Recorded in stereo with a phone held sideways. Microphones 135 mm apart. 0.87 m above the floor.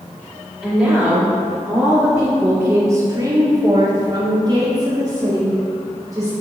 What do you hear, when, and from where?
0.6 s a woman speaking: 5° left (ahead or behind), 1.5 m; by 6.3 s 25° right (ahead or behind), 2 m